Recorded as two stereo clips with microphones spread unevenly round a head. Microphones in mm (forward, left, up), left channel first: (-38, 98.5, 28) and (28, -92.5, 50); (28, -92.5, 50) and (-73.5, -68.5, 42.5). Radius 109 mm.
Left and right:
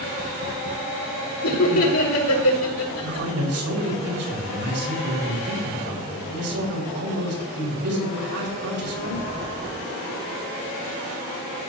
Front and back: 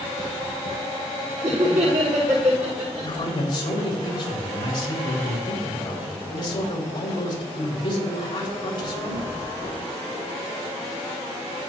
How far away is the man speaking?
About 4 m.